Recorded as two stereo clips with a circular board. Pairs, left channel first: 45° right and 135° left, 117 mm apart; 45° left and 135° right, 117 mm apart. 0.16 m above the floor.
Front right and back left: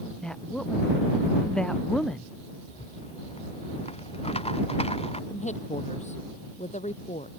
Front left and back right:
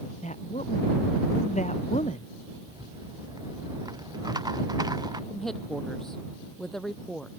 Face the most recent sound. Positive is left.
turn(degrees=-40)